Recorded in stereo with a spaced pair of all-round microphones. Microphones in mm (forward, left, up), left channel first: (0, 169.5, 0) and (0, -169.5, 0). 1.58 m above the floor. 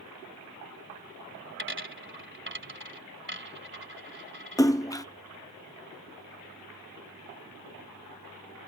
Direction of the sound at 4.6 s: 10° left (ahead or behind).